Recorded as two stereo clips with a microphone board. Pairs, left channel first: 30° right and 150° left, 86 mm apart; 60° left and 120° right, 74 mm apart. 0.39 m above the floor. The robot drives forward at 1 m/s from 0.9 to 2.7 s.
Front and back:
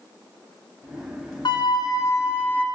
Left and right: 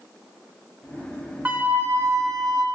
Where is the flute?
55° right, 1.5 m; by 2.6 s 105° right, 1.3 m.